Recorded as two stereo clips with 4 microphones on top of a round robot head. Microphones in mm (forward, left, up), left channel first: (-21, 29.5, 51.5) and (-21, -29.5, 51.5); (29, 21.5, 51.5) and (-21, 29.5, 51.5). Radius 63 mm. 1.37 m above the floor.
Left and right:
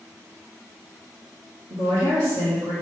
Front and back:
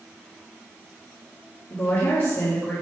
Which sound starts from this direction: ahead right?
A woman speaking, at 1.7 s.